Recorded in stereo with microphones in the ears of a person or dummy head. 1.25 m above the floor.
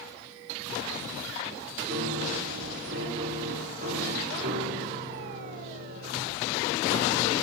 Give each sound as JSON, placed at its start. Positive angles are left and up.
{"t": 1.9, "sound": "a piano", "side_deg": -50, "distance_m": 5.5}